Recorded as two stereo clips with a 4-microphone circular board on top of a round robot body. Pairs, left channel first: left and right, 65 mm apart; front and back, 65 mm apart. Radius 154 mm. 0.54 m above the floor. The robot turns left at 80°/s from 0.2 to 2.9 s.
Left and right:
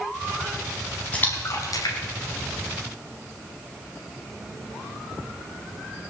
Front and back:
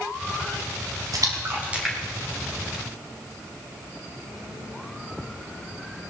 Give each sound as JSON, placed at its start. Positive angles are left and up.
{"t": 1.1, "sound": "a splash", "azimuth_deg": 160, "distance_m": 3.0}